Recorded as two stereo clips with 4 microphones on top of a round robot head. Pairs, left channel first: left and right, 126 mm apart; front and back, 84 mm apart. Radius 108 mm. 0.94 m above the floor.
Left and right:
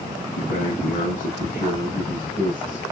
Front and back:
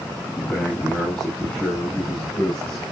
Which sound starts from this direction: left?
A man speaking, at 0.4 s.